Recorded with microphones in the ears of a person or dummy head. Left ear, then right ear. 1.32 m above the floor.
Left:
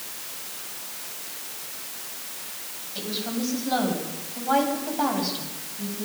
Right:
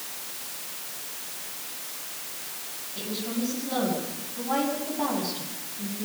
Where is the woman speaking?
40° left (ahead or behind), 9.5 m.